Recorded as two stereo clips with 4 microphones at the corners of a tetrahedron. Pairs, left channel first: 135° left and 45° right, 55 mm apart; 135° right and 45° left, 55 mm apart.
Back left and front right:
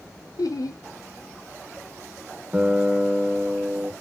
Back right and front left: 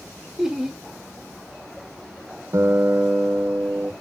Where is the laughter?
125° left, 0.5 m.